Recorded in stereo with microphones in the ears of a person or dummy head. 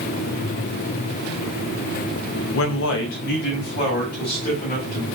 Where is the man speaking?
80° left, 0.6 m; by 5.0 s 50° left (ahead or behind), 1.9 m.